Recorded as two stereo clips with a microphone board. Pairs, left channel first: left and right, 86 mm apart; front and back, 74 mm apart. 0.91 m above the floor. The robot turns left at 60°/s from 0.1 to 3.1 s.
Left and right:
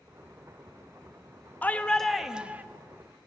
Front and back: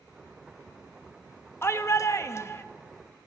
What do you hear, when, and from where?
1.6 s a shout: 30° left, 0.6 m; by 2.6 s 35° right, 0.6 m